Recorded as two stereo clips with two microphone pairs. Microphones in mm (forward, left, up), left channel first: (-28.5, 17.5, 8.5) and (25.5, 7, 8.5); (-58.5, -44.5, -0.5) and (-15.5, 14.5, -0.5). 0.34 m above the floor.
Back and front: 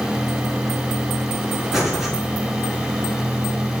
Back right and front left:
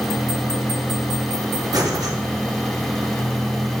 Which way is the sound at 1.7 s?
70° left.